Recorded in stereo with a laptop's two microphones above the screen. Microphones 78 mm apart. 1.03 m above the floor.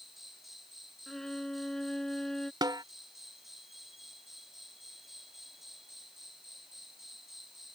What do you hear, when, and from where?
0.0 s an insect: 5° right (ahead or behind)
1.1 s a violin: 10° left (ahead or behind)
2.6 s a snare drum: 60° right (ahead or behind)